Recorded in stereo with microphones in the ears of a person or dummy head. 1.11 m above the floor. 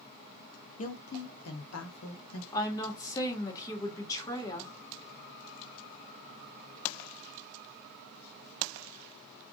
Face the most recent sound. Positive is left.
turn(degrees=25)  # may be behind; listen again after turning